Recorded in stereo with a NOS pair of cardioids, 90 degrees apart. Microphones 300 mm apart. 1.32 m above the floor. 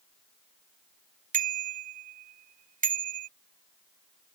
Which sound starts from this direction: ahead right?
A bicycle bell, at 1.3 s.